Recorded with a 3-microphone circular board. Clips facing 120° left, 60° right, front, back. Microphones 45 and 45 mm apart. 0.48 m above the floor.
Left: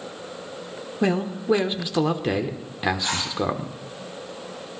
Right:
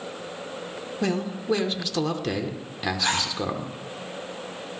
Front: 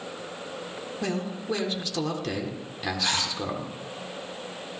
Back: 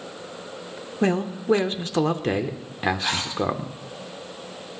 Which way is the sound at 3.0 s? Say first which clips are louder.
Right 2 dB, back 1 dB; 100° right.